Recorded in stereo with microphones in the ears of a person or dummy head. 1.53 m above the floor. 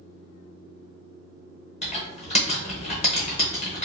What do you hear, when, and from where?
1.8 s typing on a keyboard: 35° left (ahead or behind), 0.8 m